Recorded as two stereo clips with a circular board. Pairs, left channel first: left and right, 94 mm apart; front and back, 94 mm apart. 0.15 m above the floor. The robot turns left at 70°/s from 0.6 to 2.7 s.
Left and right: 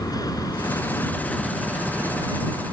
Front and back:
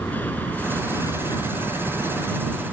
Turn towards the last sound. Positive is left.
turn(degrees=-80)